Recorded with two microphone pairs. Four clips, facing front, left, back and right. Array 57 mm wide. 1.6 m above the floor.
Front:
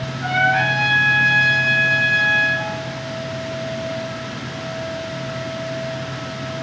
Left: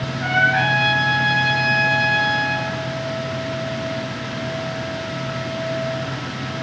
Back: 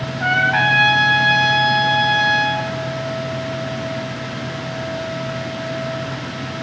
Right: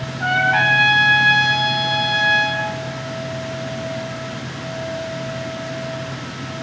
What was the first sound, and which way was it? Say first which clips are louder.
A trumpet: right 1 dB, back 1 dB; 130° right.